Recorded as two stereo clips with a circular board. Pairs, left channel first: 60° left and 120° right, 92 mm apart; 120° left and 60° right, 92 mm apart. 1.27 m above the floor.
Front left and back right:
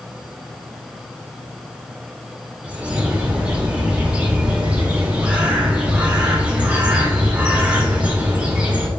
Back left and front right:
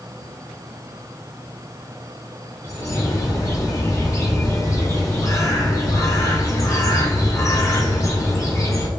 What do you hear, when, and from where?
2.6 s a bird: 165° left, 1.0 m